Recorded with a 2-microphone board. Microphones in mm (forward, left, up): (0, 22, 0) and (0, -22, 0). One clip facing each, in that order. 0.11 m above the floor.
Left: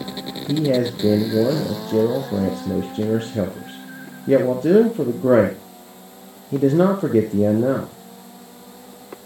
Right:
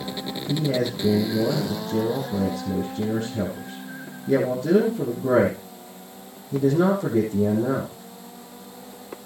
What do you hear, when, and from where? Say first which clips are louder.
0.5 s a man speaking: left 5 dB; 60° left (ahead or behind), 3.5 m